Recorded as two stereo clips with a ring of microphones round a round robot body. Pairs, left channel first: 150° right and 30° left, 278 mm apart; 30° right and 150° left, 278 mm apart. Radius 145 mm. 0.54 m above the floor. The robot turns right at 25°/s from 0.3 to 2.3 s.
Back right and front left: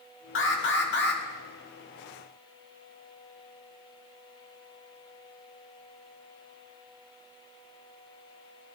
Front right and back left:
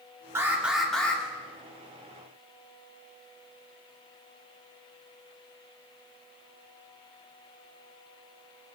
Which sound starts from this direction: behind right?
An alarm, at 0.3 s.